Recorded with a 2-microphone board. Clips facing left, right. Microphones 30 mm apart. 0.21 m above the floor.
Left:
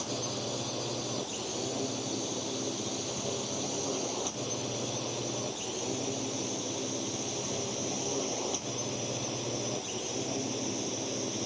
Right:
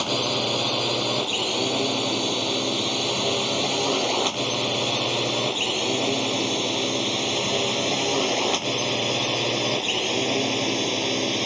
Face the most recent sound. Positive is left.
turn(degrees=-65)  # may be behind; listen again after turning